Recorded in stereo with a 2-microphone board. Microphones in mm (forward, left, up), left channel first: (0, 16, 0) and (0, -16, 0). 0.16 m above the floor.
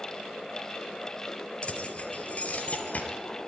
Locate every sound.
1.6 s keys jangling: 30° left (ahead or behind), 2.5 m; by 3.1 s 45° left (ahead or behind), 3 m